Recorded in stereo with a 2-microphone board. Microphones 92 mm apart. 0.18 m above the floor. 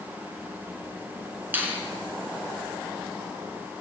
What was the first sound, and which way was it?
A finger snap, 20° right (ahead or behind).